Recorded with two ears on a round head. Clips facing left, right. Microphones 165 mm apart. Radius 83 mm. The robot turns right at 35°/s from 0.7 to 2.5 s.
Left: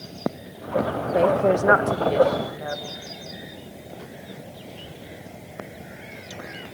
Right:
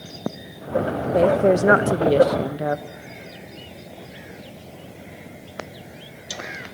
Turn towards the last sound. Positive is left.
turn(degrees=-120)